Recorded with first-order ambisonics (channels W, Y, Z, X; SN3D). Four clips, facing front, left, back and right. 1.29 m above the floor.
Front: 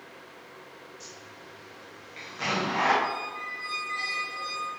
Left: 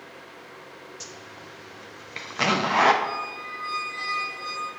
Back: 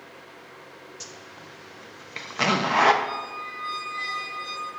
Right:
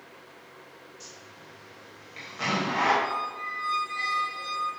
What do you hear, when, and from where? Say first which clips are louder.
1.0 s a zipper: left 5 dB, back 3 dB; 140° left, 0.8 m
3.0 s a squeak: even, back 1 dB; 10° right, 2.5 m